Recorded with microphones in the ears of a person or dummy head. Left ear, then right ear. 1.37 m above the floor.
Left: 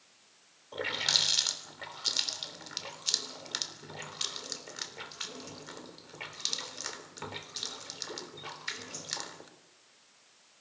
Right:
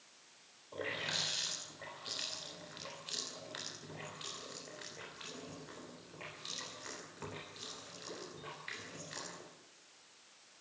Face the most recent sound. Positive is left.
turn(degrees=80)